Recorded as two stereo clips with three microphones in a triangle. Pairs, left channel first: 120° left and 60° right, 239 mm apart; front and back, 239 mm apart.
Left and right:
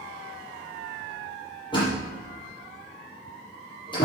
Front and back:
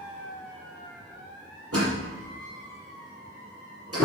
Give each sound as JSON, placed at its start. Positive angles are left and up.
{"t": 1.7, "sound": "a door slam", "azimuth_deg": -170, "distance_m": 5.5}